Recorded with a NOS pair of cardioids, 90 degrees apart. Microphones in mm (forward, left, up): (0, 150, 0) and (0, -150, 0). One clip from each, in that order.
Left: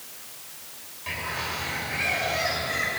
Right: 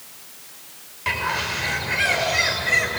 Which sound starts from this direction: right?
A bird, at 1.1 s.